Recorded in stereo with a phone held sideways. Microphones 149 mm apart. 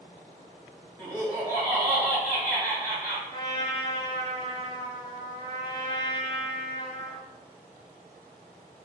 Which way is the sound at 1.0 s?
Centre (ahead or behind).